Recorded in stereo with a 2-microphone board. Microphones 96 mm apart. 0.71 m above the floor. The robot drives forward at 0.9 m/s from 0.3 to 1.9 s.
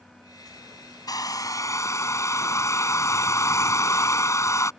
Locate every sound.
1.1 s a hair dryer: 45° left (ahead or behind); by 4.7 s 35° left (ahead or behind)